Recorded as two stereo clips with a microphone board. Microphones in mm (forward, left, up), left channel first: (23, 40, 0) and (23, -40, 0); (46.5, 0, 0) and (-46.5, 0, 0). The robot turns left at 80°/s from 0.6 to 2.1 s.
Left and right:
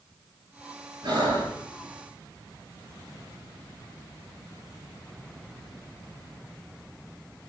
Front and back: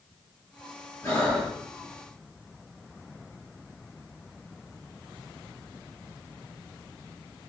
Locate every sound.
1.0 s breathing: 60° right, 5 m; by 1.6 s 100° right, 5 m